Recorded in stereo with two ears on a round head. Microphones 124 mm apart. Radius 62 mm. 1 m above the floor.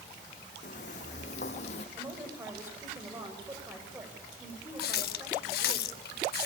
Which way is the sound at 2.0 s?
15° right (ahead or behind).